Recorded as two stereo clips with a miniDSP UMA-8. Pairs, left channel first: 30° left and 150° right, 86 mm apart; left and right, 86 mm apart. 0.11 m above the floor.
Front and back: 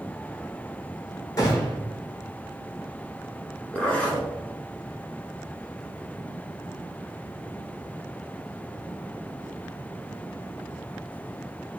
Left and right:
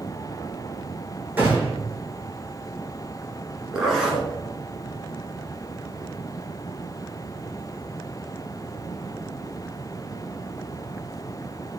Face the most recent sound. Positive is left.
turn(degrees=-20)